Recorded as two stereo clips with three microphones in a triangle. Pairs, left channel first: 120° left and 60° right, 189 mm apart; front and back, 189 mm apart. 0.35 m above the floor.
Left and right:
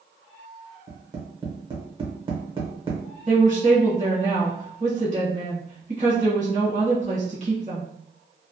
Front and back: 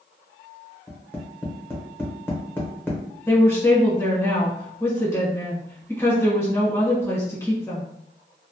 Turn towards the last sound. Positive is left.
turn(degrees=-70)